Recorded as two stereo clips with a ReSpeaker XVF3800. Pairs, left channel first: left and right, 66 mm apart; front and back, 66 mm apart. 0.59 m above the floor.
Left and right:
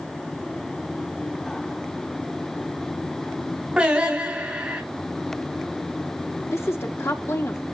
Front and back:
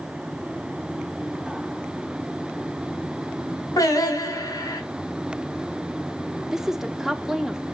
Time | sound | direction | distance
3.8 | singing | 15° right | 3.5 m
6.5 | a woman speaking | 100° left | 1.4 m